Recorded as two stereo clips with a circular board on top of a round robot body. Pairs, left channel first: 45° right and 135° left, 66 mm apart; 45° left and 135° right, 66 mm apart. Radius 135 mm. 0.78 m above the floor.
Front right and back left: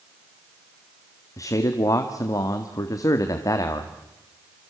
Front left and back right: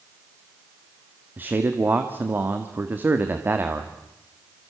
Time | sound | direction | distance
1.4 | a man speaking | 75° right | 2 m